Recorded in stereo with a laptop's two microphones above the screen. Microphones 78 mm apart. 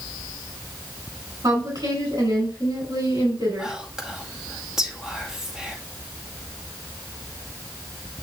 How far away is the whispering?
About 1.9 m.